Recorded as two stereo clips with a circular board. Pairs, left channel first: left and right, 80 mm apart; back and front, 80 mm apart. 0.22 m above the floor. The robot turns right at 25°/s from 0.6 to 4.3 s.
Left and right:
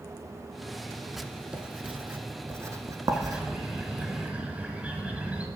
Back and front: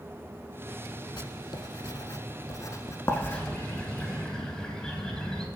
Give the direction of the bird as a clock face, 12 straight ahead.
5 o'clock.